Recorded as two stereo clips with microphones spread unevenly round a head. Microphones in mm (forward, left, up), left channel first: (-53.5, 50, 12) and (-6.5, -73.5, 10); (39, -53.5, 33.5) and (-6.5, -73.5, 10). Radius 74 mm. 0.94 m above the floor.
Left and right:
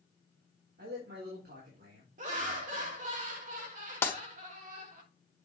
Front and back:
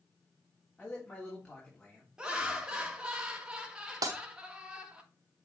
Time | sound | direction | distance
0.8 | a man speaking | 50° right | 2.5 m
2.2 | laughter | 90° right | 2.5 m
4.0 | breaking glass | 175° right | 1.5 m